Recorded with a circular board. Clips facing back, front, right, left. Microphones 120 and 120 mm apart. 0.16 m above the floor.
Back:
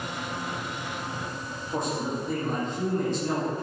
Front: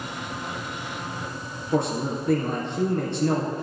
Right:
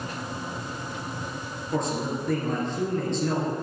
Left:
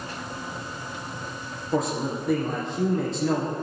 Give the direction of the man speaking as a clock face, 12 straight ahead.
12 o'clock.